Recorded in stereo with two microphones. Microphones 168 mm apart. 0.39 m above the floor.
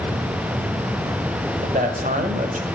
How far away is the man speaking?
About 1.4 m.